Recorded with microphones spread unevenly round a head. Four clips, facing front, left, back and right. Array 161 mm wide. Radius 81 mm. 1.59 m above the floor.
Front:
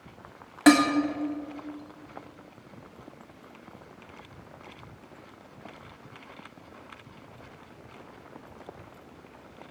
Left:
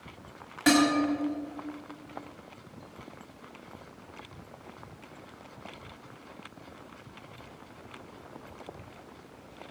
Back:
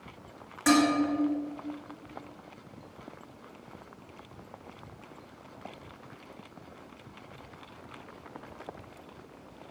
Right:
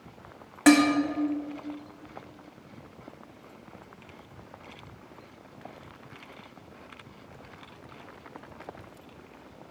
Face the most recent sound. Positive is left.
turn(degrees=-30)